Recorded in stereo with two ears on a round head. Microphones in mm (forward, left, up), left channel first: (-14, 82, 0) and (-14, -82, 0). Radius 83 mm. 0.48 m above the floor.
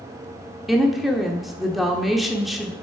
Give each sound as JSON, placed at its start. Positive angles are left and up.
{"t": 0.7, "sound": "a woman speaking", "side_deg": 0, "distance_m": 1.0}